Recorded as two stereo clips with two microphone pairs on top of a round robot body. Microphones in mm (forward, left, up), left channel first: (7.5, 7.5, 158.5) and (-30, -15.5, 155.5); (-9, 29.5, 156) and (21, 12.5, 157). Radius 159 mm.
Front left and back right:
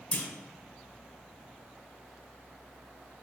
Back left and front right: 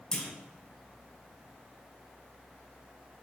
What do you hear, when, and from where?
0.1 s a clunk: 80° left, 1.6 m